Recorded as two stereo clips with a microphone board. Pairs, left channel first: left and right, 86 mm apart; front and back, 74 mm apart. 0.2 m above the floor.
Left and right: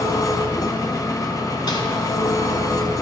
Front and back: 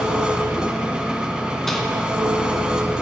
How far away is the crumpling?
About 1.1 m.